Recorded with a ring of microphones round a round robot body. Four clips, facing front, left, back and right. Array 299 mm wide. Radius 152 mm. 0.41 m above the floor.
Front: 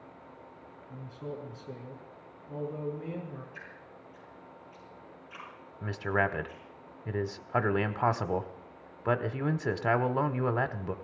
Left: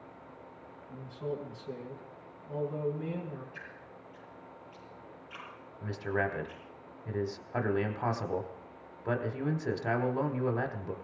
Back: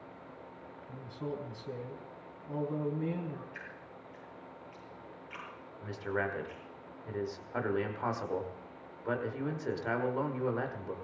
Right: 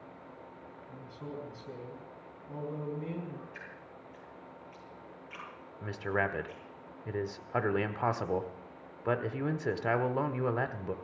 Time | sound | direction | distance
0.9 | a man speaking | 175° right | 4 m
3.5 | dripping | 165° right | 9 m
5.8 | a man speaking | 20° right | 1.2 m